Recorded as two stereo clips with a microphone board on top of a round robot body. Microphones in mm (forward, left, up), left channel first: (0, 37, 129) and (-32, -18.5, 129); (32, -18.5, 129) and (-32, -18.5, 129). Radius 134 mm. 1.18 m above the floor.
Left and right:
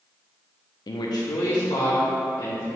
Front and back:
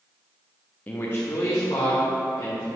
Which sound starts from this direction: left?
A man speaking, at 0.9 s.